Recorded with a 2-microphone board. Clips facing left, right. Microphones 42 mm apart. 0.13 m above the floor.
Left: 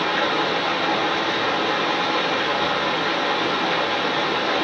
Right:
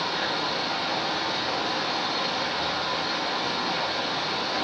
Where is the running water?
60° left (ahead or behind), 8.5 m.